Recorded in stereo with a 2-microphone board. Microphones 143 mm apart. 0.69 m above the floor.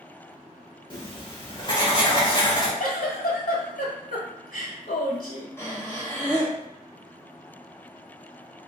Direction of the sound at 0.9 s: 35° left (ahead or behind).